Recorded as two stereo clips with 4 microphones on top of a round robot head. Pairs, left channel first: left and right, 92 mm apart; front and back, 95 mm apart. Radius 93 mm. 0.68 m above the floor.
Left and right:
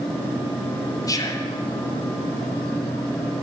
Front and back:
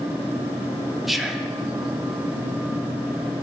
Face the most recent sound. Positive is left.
turn(degrees=95)